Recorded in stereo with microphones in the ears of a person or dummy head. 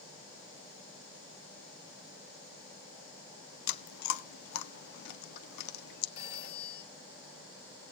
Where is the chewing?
65° left (ahead or behind), 0.8 m.